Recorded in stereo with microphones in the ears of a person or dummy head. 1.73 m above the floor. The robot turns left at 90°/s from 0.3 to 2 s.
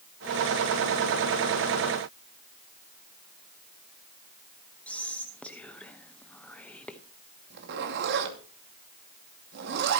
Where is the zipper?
55° right (ahead or behind), 2 m.